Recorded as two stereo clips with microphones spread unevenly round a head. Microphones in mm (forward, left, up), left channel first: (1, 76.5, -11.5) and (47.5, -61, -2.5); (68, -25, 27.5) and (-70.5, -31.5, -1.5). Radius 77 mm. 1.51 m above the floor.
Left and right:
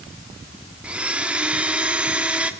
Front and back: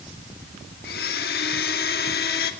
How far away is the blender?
About 2.5 m.